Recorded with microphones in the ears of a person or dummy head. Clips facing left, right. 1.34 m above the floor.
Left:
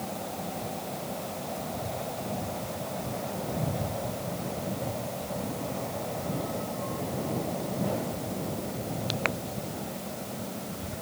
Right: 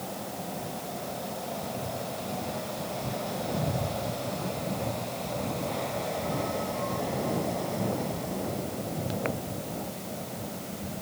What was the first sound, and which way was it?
Only background noise.